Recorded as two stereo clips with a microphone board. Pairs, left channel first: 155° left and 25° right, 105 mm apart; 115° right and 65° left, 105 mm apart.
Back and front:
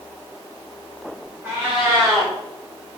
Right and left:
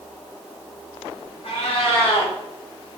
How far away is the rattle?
I don't hear a rattle.